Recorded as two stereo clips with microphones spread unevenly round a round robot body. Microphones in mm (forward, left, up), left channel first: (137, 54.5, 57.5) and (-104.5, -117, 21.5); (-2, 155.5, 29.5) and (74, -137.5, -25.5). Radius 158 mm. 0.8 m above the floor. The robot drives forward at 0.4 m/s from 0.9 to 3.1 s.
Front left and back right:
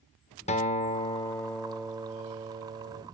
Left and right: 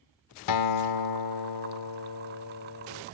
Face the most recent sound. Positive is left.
turn(degrees=140)